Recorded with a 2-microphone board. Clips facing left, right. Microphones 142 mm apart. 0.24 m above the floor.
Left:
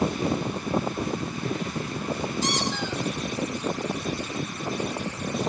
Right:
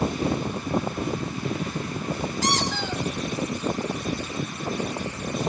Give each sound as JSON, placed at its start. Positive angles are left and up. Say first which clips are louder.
{"t": 2.4, "sound": "a squeak", "louder": "right 1 dB", "side_deg": -75, "distance_m": 3.0}